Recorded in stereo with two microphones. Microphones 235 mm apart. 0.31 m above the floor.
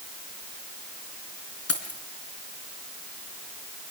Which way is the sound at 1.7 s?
75° left (ahead or behind).